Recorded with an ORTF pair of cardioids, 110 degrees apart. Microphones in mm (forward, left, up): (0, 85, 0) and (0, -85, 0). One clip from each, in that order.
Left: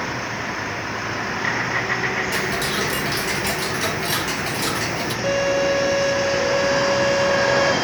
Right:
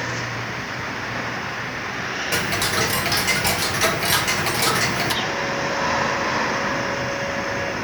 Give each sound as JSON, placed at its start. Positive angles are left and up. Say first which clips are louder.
{"t": 2.3, "sound": "ticking", "louder": "right 1 dB", "azimuth_deg": -25, "distance_m": 1.1}
{"t": 5.2, "sound": "a violin", "louder": "left 4 dB", "azimuth_deg": 50, "distance_m": 0.5}